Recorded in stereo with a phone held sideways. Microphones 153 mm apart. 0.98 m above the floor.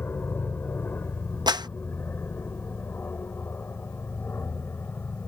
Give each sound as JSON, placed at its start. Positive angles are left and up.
{"t": 0.0, "sound": "an aircraft", "side_deg": 15}
{"t": 1.5, "sound": "a clap", "side_deg": -30}